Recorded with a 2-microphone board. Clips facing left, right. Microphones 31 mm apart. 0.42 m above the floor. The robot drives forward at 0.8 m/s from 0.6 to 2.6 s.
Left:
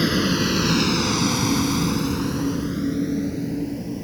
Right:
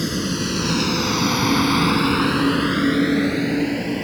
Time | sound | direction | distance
0.0 | a vehicle | 25° left (ahead or behind) | ?